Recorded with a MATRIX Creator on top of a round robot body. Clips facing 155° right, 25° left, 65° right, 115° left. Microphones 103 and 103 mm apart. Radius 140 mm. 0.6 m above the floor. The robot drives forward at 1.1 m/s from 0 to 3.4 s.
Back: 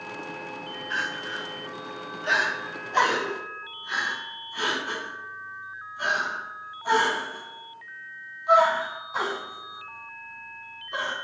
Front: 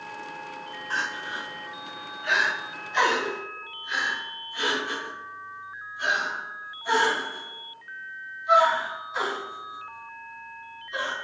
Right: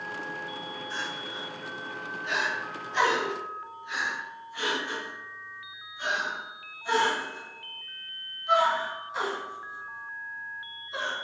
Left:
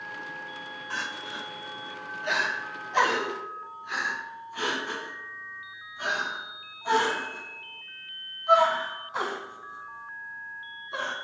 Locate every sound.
0.9 s crying: 80° left, 1.2 m; by 11.1 s 155° left, 3 m